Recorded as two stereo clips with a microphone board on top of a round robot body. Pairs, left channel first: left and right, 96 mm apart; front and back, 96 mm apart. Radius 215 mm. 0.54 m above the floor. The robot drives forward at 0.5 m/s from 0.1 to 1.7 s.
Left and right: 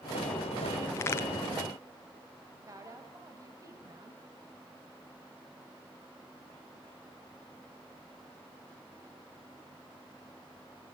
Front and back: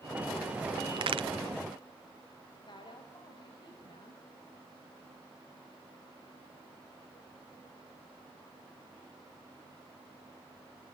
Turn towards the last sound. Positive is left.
turn(degrees=-35)